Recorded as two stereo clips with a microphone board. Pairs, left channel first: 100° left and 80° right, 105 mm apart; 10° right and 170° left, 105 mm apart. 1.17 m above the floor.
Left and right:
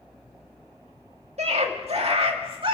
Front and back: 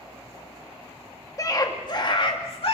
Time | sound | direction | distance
1.4 | a scream | 70° right | 2 m